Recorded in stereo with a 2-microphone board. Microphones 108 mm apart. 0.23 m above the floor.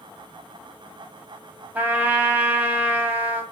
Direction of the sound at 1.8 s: 15° right (ahead or behind).